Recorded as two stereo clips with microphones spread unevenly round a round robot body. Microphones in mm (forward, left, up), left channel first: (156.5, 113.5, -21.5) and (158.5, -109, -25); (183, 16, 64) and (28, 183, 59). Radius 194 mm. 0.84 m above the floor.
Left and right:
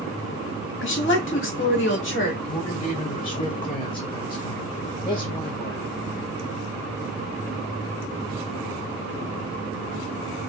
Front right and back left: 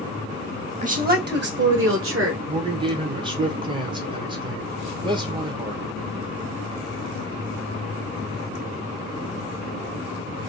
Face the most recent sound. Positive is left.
turn(degrees=115)